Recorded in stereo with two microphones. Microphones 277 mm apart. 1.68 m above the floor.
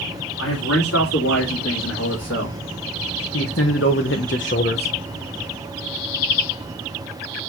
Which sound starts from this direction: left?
A man speaking, at 0.4 s.